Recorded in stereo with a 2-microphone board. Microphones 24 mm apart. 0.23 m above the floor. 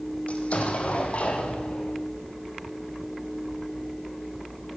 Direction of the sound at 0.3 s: 60° left (ahead or behind).